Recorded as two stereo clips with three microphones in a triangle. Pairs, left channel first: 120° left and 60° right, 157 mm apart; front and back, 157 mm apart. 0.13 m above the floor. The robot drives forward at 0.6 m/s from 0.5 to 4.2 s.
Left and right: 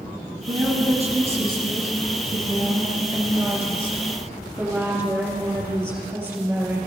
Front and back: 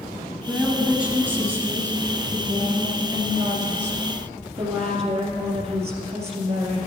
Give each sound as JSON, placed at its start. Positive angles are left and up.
{"t": 0.5, "sound": "a woman speaking", "azimuth_deg": -90, "distance_m": 2.5}